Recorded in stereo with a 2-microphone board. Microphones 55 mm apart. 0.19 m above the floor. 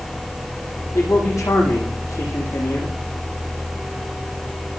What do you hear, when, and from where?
0.9 s a man speaking: 70° left (ahead or behind), 8.5 m